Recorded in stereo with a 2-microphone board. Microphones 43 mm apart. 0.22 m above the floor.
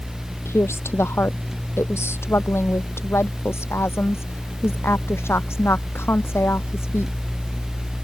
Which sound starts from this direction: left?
A woman speaking, at 0.5 s.